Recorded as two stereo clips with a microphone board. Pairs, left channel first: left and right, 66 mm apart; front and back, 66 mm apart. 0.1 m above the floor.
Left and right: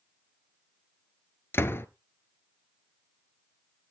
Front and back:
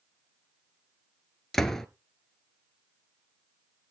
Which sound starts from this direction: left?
A door slam, at 1.5 s.